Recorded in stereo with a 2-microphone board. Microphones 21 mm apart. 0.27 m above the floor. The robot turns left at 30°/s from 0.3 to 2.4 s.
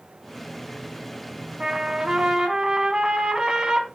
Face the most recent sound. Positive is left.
turn(degrees=-45)  # may be behind; listen again after turning